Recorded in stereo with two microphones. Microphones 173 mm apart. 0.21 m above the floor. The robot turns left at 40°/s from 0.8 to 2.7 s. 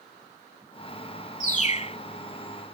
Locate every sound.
1.4 s a bird: 45° left (ahead or behind); by 2.0 s 40° left (ahead or behind)